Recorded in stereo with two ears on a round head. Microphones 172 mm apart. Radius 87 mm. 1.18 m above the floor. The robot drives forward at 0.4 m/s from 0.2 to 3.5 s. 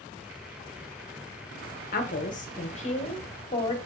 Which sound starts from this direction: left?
A woman speaking, at 1.9 s.